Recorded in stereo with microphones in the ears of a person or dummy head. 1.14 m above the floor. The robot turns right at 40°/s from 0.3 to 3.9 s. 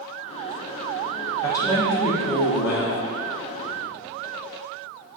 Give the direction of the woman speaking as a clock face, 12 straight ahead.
11 o'clock.